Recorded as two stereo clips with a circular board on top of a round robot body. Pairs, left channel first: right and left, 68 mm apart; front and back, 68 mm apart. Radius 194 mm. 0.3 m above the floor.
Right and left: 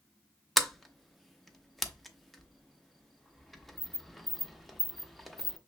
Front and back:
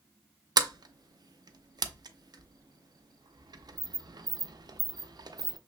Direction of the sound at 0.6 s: Straight behind.